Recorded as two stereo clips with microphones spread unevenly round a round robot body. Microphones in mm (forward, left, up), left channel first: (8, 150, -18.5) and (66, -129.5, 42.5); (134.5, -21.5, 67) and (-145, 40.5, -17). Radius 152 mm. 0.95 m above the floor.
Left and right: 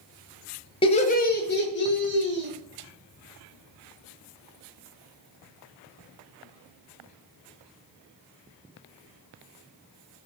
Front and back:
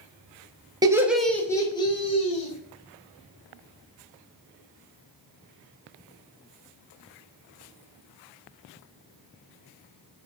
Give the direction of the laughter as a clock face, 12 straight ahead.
8 o'clock.